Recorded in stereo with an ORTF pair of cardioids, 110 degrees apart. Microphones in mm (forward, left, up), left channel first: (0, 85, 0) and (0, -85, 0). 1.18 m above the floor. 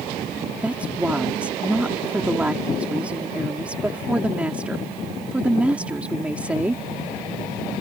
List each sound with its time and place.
0.6 s a woman speaking: 10° right